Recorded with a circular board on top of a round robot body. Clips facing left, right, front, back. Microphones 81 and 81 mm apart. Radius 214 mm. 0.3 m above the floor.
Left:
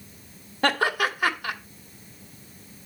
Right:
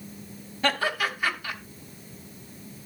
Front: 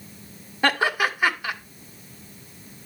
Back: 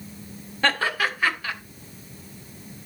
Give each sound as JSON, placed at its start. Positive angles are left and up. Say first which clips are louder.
{"t": 0.6, "sound": "laughter", "louder": "left 3 dB, front 2 dB", "azimuth_deg": 75, "distance_m": 2.5}